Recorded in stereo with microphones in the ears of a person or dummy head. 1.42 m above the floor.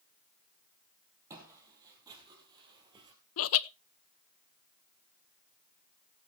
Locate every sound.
1.3 s footsteps: 20° right (ahead or behind), 3 m; by 3.1 s 30° right (ahead or behind), 2 m
3.4 s laughter: 70° left (ahead or behind), 0.7 m